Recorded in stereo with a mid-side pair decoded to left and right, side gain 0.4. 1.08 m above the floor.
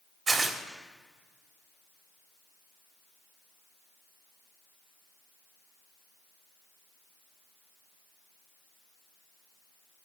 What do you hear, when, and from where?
0.3 s tearing paper: 50° right, 1.8 m